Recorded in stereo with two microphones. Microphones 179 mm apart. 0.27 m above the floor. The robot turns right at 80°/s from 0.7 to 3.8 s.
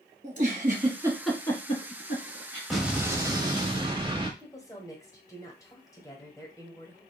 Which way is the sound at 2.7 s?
Centre (ahead or behind).